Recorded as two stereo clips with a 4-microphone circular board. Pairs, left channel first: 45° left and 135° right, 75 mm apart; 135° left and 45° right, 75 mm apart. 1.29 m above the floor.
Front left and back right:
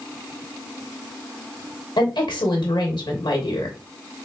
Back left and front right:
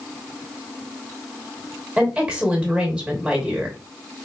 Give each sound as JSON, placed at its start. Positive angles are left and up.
{"t": 2.0, "sound": "a woman speaking", "azimuth_deg": 30, "distance_m": 0.9}